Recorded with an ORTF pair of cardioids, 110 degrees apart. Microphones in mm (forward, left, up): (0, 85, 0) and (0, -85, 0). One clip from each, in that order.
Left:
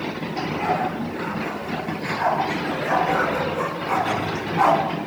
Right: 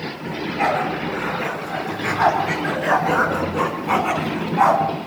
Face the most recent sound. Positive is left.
turn(degrees=-15)